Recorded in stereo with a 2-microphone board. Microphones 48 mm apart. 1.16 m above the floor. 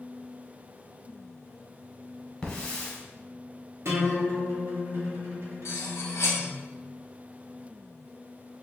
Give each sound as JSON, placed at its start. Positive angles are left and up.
{"t": 2.4, "sound": "a hiss", "side_deg": 15, "distance_m": 1.3}
{"t": 3.9, "sound": "a guitar", "side_deg": -60, "distance_m": 1.1}
{"t": 5.7, "sound": "cutlery clinking", "side_deg": 70, "distance_m": 0.7}